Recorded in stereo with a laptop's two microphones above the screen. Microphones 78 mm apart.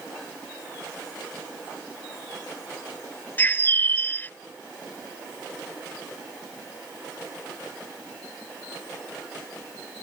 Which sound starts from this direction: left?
A bird, at 3.4 s.